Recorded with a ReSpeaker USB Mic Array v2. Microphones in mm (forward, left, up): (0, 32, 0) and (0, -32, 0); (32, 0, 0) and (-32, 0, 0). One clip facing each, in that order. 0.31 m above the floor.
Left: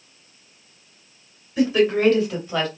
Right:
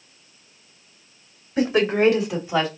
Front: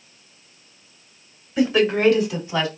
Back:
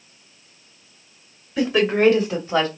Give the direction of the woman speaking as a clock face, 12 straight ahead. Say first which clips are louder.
Left 1 dB, even; 3 o'clock.